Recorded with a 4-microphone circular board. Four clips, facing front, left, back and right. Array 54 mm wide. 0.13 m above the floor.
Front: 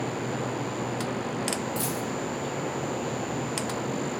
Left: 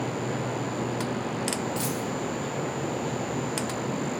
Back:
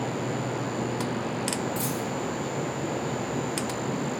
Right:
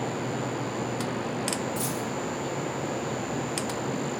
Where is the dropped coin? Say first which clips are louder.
Left 1 dB, back 1 dB; 70° left, 1.1 m.